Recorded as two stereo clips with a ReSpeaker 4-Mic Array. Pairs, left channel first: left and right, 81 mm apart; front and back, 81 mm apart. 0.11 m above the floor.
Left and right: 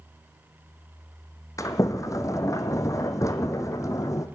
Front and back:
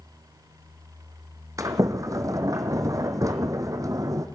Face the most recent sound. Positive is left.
turn(degrees=135)